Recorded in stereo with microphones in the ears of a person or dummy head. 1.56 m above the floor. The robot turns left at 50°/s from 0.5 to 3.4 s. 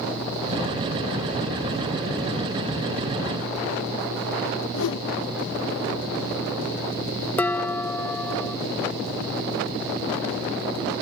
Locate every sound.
4.7 s a whoosh: 70° left (ahead or behind)
7.4 s dishes clattering: 5° left (ahead or behind)